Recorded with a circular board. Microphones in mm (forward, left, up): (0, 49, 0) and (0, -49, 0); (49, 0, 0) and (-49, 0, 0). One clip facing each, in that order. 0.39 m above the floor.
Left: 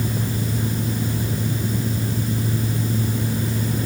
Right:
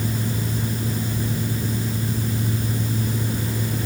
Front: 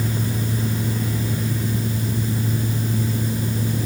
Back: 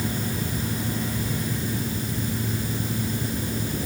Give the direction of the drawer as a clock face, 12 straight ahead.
I don't hear a drawer.